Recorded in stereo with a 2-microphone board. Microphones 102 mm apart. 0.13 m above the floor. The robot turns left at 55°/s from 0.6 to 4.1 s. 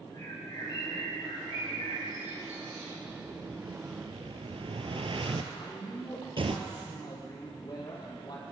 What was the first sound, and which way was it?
A bird, 135° left.